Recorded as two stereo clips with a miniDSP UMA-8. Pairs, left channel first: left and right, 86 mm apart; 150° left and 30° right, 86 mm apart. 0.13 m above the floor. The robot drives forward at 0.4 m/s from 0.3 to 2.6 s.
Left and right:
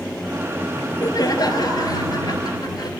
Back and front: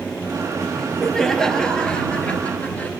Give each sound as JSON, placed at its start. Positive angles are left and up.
{"t": 0.8, "sound": "laughter", "azimuth_deg": 60, "distance_m": 2.0}